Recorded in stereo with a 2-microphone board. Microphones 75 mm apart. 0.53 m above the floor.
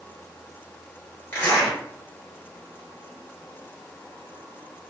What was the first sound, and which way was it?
A zipper, 25° left (ahead or behind).